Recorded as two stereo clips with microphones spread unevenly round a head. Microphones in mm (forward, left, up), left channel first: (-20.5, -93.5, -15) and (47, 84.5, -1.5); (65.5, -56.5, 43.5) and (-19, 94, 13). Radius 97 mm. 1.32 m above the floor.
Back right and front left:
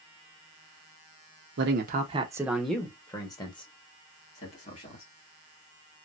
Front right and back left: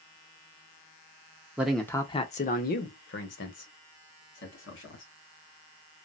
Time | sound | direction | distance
1.6 | a man speaking | 40° left | 0.7 m